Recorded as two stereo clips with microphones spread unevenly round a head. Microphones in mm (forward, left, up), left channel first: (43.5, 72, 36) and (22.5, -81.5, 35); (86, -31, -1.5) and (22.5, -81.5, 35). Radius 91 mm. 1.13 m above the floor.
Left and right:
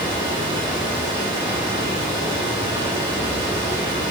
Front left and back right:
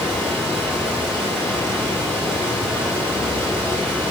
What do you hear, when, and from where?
0.0 s a fan: 40° right, 6 m